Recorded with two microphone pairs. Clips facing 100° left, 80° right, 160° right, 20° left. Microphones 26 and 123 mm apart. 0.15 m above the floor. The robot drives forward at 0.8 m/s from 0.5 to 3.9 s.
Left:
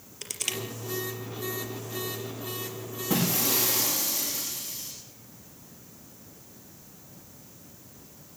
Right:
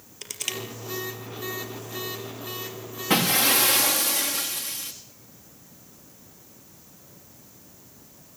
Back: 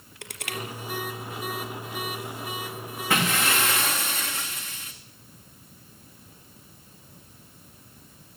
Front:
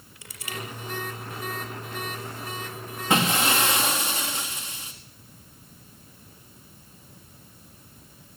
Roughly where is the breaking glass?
Ahead right.